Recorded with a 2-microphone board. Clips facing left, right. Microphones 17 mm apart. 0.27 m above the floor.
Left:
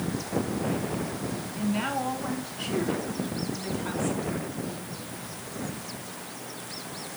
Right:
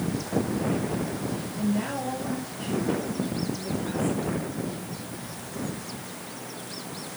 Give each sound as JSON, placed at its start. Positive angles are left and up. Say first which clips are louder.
{"t": 1.6, "sound": "a woman speaking", "louder": "even", "side_deg": 65, "distance_m": 2.5}